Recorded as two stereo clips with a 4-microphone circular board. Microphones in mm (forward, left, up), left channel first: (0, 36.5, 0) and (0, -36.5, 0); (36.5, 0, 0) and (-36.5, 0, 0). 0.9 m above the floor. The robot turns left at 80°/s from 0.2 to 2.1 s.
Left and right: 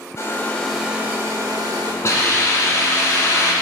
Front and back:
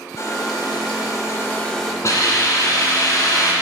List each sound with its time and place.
0.2 s a hair dryer: 45° left, 1.5 m; by 1.9 s 90° right, 1.5 m
2.0 s a hiss: 45° left, 2.0 m; by 3.5 s 40° left, 2.0 m